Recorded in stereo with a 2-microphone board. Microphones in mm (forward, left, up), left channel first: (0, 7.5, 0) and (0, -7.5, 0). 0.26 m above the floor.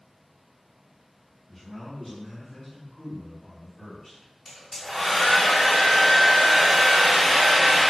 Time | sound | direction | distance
1.5 | a man speaking | 20° left (ahead or behind) | 1.5 m
4.5 | a hair dryer | 30° left (ahead or behind) | 1.9 m